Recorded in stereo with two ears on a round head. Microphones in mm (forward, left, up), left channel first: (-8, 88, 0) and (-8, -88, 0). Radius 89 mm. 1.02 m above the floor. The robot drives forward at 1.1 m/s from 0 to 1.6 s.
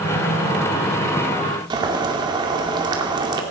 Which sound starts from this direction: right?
Boiling, at 1.7 s.